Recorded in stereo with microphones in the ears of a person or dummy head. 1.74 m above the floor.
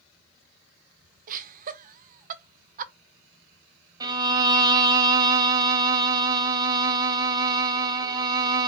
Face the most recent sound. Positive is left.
turn(degrees=-25)  # may be behind; listen again after turning